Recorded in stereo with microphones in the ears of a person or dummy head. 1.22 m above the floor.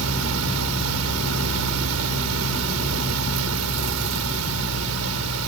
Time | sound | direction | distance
0.0 | a fan | 80° right | ?